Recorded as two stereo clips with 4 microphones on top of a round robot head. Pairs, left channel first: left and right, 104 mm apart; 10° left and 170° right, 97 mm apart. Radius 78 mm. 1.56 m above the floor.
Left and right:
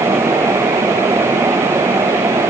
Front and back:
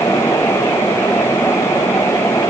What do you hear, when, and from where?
Only background noise.